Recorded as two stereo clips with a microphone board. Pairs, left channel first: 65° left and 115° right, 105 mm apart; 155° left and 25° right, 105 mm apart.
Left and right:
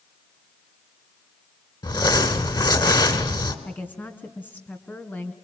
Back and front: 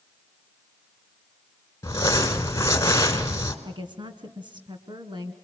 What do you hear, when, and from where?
1.8 s crumpling: 100° left, 1.8 m
3.6 s a woman speaking: straight ahead, 2 m